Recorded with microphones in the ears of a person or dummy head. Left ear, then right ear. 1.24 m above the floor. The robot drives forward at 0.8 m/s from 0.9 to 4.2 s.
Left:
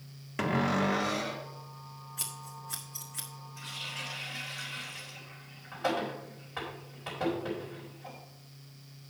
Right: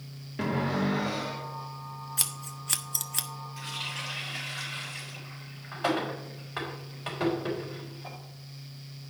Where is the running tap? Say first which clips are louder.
Right 3 dB; 20° right (ahead or behind), 3 m.